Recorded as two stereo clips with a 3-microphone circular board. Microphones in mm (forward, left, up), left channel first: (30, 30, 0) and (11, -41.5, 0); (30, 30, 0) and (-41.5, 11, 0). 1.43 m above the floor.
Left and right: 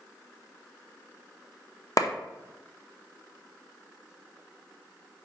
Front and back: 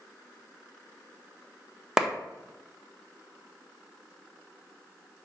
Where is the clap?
115° left, 0.6 m.